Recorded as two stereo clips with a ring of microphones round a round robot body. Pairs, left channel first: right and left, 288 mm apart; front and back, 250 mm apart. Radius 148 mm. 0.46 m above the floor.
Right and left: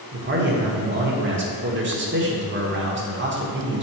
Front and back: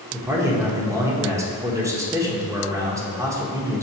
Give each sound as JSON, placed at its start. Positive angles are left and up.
{"t": 0.1, "sound": "a man speaking", "azimuth_deg": 110, "distance_m": 1.3}